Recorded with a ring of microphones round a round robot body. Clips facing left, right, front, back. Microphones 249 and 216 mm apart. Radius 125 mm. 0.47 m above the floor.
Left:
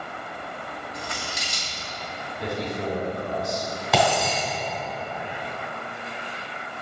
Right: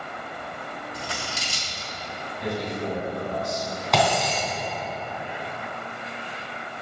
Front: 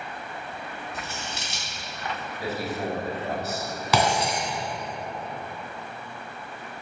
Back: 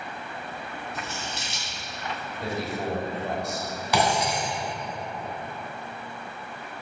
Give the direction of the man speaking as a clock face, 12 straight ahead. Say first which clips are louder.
Even, even; 9 o'clock.